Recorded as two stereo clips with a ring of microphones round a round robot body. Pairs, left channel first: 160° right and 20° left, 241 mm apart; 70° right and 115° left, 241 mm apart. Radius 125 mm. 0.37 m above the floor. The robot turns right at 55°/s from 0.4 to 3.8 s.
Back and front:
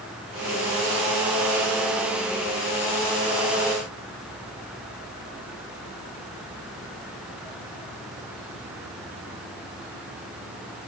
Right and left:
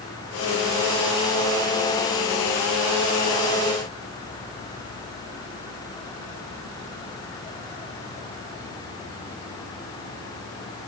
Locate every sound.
Only background noise.